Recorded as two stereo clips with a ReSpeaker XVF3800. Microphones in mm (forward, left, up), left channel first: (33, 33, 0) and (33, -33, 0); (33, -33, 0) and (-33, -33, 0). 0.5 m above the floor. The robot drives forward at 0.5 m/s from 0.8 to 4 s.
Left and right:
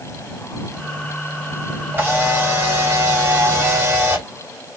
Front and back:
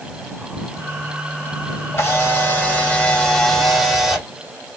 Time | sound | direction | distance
1.9 | a camera shutter | 40° right | 1.5 m